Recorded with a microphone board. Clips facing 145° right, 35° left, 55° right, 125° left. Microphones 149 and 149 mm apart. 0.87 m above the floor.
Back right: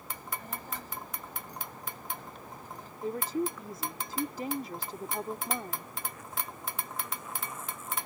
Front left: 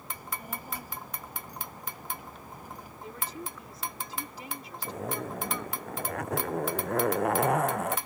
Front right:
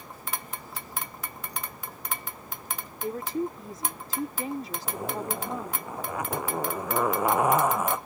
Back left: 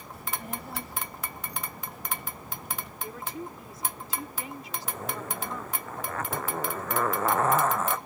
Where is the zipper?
20° left.